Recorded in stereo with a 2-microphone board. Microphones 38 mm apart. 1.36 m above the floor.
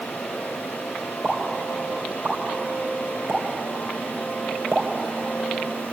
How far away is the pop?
About 3 m.